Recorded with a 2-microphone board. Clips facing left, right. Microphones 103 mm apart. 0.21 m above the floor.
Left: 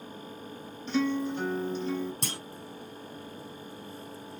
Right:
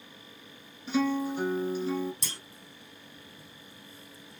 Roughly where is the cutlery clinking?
No cutlery clinking in this recording.